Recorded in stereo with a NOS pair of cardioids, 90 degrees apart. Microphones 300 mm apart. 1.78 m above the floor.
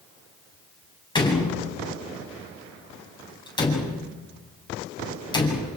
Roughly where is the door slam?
Ahead.